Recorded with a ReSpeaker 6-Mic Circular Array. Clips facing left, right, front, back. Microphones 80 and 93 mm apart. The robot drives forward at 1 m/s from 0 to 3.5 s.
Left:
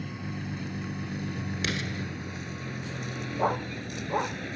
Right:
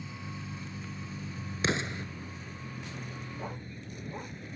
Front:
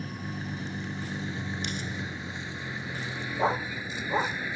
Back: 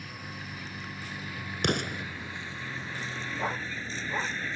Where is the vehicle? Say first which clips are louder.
Left 6 dB, front 5 dB; 55° left; by 4.6 s 80° left.